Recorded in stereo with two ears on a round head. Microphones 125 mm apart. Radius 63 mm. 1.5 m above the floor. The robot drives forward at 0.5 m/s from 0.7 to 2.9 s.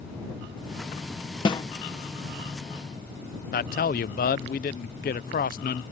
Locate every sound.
1.4 s a snare drum: 35° left (ahead or behind); by 1.6 s 30° left (ahead or behind)
3.5 s a man speaking: 65° left (ahead or behind)